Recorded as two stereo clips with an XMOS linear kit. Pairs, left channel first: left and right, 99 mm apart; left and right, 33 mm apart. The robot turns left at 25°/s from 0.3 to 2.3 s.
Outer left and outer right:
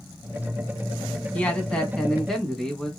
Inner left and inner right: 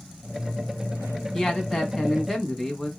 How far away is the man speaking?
About 1.1 m.